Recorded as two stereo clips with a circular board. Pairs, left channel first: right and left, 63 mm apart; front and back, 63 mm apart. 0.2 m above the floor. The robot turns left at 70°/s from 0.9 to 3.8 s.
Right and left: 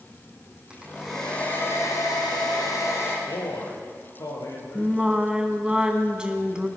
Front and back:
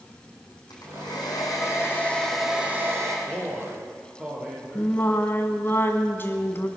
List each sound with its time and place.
0.7 s a hair dryer: 15° left, 4 m; by 3.2 s 145° right, 4 m
3.3 s a man speaking: 70° right, 5 m; by 5.0 s 110° right, 5 m
4.8 s singing: 25° left, 1.4 m